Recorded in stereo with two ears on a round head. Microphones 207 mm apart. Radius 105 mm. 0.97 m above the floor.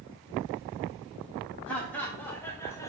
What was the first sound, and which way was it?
Laughter, 5° left (ahead or behind).